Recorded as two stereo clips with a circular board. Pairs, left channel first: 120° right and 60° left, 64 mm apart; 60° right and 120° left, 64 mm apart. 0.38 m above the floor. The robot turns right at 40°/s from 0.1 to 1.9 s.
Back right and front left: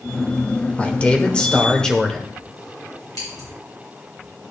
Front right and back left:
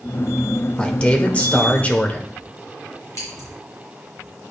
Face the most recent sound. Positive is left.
turn(degrees=-100)